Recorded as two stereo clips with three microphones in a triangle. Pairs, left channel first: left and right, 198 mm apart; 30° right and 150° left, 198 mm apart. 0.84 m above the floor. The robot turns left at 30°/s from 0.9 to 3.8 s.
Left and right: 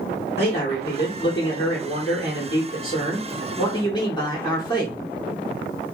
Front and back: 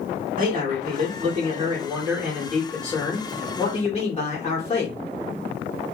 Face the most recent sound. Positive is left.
turn(degrees=25)